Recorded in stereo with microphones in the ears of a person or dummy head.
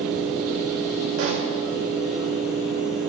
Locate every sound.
0.0 s a fan: centre (ahead or behind), 3.5 m
1.2 s a pop: 75° right (ahead or behind), 2.5 m